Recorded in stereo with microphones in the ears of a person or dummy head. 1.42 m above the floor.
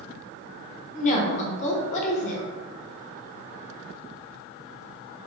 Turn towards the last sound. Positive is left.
turn(degrees=40)  # may be behind; listen again after turning